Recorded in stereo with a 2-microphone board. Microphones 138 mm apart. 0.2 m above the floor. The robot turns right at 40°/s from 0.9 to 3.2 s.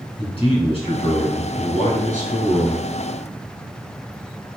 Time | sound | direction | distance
0.2 | a man speaking | 55° left | 2 m